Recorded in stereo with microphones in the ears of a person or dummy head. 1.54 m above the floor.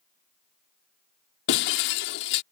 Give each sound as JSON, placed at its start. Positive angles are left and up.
{"t": 1.5, "sound": "breaking glass", "side_deg": 65}